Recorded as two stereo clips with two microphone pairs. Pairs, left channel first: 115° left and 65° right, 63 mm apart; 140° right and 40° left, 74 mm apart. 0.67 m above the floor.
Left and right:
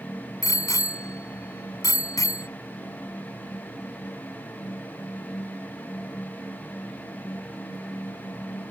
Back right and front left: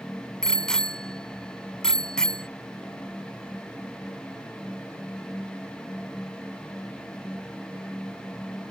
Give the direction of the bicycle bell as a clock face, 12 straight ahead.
7 o'clock.